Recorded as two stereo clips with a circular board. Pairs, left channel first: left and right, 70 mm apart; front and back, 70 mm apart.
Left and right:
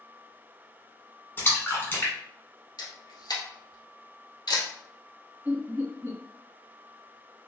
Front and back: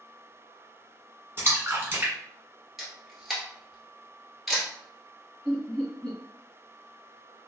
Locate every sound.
1.4 s a splash: 135° left, 1.1 m
2.8 s a camera shutter: 95° left, 1.4 m
5.5 s laughter: 80° right, 1.8 m